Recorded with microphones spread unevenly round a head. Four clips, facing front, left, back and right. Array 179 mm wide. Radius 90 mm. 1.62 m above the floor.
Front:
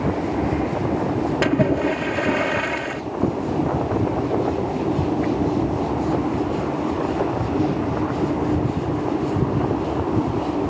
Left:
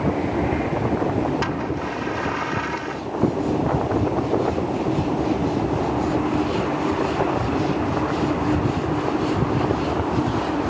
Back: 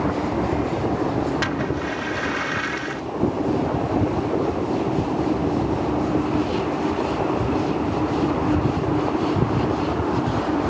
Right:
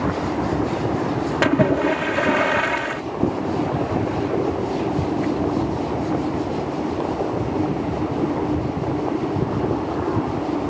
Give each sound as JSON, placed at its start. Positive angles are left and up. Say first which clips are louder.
{"t": 1.4, "sound": "a splash", "louder": "right 8 dB, front 6 dB", "azimuth_deg": -50}